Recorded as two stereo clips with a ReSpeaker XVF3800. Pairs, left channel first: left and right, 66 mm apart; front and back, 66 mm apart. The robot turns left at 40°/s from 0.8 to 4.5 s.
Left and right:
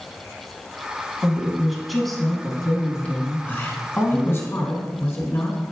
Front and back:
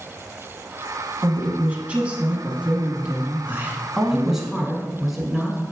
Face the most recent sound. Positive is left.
turn(degrees=95)